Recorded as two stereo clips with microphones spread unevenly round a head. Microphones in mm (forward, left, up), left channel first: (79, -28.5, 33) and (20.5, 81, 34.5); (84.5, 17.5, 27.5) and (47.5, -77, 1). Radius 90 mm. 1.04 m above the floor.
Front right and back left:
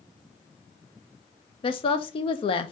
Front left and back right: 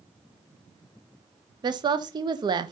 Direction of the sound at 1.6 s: 100° right.